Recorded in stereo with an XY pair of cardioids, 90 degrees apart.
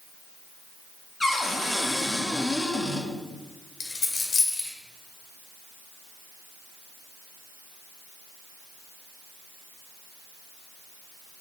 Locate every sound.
1.2 s a cupboard door: 20° left, 1.9 m
3.8 s a dropped coin: 50° left, 2.5 m